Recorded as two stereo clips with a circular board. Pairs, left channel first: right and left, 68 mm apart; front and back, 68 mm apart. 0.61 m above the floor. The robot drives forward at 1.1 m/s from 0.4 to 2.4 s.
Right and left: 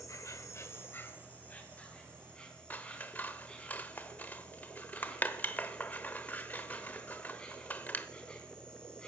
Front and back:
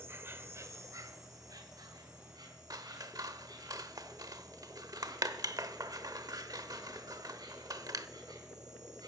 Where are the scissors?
155° right, 0.9 m.